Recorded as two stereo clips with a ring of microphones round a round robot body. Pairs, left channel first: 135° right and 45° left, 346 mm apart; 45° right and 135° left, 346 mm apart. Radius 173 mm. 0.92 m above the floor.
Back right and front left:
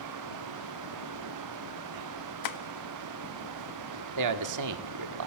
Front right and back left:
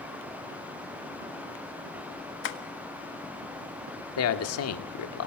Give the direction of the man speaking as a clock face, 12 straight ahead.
12 o'clock.